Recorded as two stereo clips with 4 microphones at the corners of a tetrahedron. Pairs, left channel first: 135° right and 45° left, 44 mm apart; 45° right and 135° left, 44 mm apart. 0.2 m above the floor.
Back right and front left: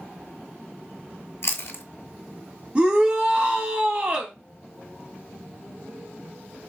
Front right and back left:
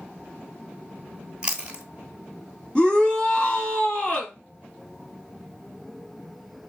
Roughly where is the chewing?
Behind.